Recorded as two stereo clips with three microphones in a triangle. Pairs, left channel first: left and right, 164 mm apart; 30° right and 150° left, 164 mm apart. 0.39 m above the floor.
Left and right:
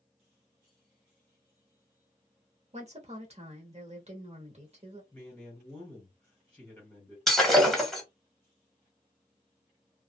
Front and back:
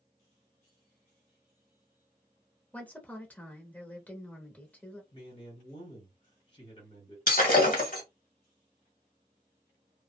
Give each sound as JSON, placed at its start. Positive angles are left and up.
{"t": 2.7, "sound": "a woman speaking", "azimuth_deg": -105, "distance_m": 1.0}
{"t": 5.1, "sound": "a man speaking", "azimuth_deg": 15, "distance_m": 1.8}
{"t": 7.3, "sound": "breaking glass", "azimuth_deg": 0, "distance_m": 1.0}